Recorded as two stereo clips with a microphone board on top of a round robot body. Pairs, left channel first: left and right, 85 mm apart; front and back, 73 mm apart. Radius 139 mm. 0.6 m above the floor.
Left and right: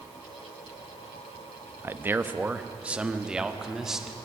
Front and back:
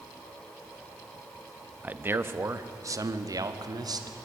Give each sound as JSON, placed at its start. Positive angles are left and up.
{"t": 1.8, "sound": "a man speaking", "azimuth_deg": -130, "distance_m": 1.3}